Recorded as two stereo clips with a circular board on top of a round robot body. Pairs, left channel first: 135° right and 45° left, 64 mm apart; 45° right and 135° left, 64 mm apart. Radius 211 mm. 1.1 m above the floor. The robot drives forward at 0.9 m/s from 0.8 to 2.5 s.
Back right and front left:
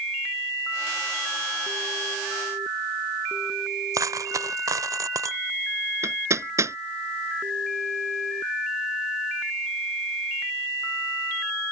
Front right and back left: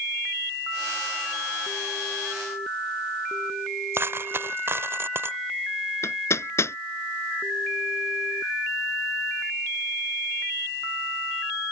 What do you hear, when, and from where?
3.9 s a dropped coin: 80° left
6.0 s hammering: straight ahead